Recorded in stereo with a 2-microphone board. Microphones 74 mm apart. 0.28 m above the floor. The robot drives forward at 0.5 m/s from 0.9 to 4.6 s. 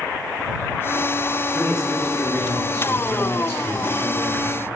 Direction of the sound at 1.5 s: 35° left (ahead or behind).